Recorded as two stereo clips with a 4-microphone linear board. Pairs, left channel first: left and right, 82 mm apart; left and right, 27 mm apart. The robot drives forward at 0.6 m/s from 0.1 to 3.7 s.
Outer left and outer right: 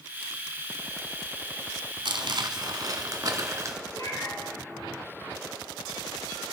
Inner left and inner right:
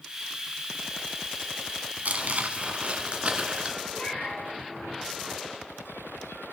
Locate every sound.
2.0 s crumpling: 70° right (ahead or behind), 1.1 m; by 3.8 s 40° right (ahead or behind), 1.6 m
3.9 s a cat meowing: 45° left (ahead or behind), 4.5 m